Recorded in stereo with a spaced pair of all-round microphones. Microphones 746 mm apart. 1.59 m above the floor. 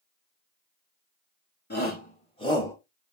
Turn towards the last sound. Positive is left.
turn(degrees=5)  # may be behind; listen again after turning